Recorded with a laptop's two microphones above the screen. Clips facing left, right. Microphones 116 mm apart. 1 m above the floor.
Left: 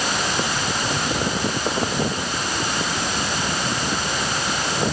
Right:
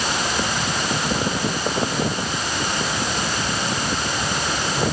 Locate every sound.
Only background noise.